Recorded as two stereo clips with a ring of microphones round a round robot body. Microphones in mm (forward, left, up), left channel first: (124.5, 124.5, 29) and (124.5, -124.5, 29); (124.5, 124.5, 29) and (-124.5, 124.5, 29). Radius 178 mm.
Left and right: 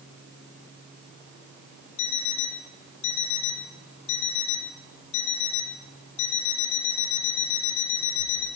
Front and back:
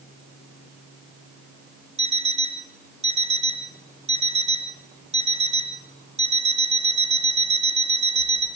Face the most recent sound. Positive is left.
turn(degrees=115)